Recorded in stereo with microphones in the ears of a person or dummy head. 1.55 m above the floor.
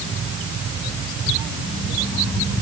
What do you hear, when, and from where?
Only background noise.